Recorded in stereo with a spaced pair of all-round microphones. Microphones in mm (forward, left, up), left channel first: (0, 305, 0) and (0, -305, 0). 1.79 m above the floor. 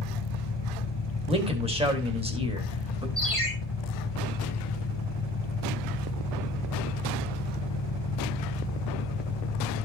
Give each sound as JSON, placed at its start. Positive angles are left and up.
{"t": 0.0, "sound": "an engine running", "side_deg": 40, "distance_m": 1.2}
{"t": 1.3, "sound": "a man speaking", "side_deg": -10, "distance_m": 2.5}
{"t": 3.2, "sound": "a ringtone", "side_deg": -30, "distance_m": 7.5}